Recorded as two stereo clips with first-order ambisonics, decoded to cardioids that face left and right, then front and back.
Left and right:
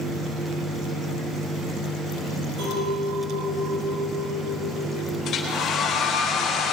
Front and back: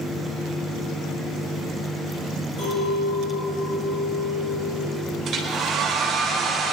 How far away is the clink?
About 5.5 m.